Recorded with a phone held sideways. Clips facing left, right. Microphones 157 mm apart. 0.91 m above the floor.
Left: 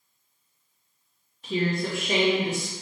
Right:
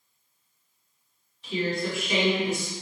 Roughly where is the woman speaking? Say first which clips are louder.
Left 2 dB; left.